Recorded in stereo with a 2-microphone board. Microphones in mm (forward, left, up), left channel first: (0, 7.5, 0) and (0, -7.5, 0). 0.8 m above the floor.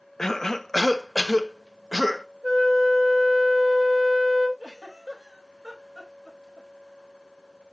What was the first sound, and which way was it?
A cough, 35° left (ahead or behind).